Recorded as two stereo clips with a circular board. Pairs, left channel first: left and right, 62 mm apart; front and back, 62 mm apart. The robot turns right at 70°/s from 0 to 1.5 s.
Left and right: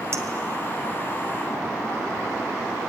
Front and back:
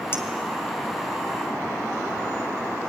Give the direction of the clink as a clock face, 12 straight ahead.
2 o'clock.